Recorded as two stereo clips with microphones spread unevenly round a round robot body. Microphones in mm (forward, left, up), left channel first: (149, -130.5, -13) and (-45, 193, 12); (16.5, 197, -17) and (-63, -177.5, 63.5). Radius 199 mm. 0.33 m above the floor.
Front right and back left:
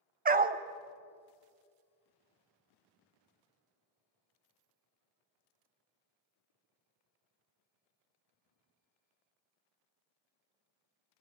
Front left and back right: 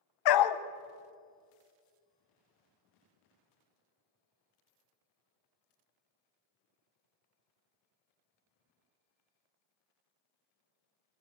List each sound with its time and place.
0.2 s a dog barking: 50° left, 0.9 m